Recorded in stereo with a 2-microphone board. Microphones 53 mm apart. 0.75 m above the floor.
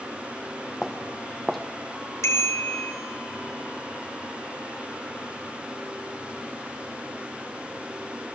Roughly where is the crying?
I don't hear crying.